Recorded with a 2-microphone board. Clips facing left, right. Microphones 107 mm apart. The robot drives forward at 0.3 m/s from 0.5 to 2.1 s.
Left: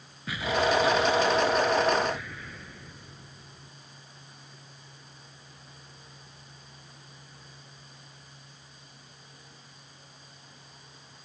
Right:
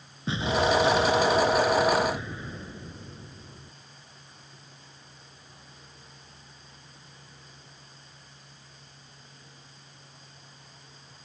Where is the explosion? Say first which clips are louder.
Right 1 dB; 25° right (ahead or behind).